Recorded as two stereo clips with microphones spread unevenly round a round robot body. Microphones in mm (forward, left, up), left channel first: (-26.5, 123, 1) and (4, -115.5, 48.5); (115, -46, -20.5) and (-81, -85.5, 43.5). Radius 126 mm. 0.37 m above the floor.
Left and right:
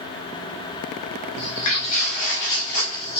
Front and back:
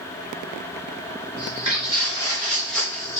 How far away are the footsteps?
About 1.2 m.